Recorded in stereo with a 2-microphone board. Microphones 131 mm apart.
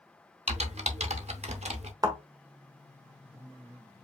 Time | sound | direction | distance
0.5 | typing on a keyboard | 60° right (ahead or behind) | 0.7 m
2.0 | a thud | 30° right (ahead or behind) | 1.2 m